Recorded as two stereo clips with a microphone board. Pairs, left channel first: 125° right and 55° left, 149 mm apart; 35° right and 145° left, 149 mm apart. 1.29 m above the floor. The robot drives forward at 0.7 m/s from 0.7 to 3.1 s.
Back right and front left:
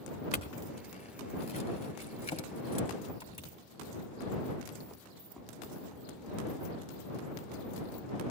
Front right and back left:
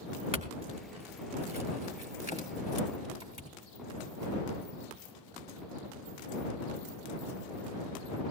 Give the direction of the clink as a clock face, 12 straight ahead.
6 o'clock.